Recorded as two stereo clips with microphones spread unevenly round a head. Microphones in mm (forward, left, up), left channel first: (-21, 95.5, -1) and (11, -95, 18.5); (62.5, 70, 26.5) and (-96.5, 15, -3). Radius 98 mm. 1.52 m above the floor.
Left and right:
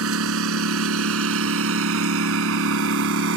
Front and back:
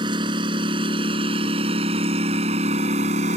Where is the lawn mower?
90° right; by 3.4 s 100° right.